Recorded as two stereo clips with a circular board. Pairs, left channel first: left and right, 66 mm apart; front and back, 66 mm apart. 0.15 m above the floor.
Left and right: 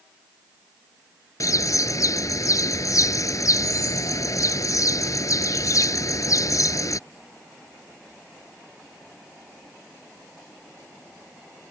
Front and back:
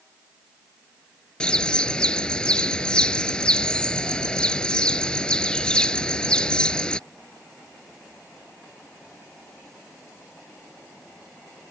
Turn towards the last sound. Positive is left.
turn(degrees=75)